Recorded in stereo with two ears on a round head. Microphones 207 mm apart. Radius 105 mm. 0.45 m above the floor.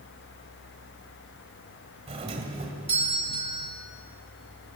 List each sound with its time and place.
2.1 s a doorbell: 25° right (ahead or behind), 2.5 m